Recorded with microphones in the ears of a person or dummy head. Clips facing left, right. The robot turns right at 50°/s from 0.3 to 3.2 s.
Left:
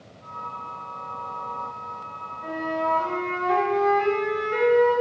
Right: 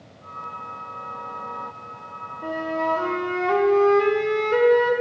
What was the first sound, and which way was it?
A flute, 105° right.